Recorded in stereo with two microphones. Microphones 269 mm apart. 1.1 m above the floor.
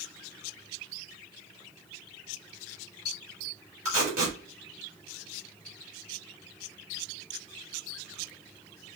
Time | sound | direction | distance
3.9 | tape being pulled | 55° right (ahead or behind) | 3 m